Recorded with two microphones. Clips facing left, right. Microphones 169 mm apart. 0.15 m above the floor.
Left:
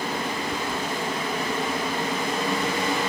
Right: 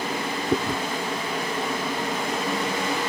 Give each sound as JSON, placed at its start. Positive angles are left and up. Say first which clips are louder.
{"t": 0.5, "sound": "chewing", "louder": "right 5 dB", "side_deg": -60}